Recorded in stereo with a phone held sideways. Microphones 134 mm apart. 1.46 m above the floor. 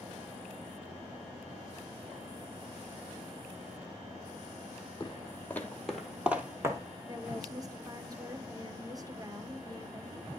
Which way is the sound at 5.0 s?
25° left (ahead or behind).